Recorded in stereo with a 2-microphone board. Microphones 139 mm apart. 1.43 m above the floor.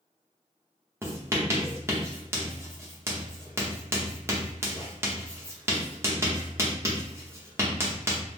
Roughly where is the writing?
Centre.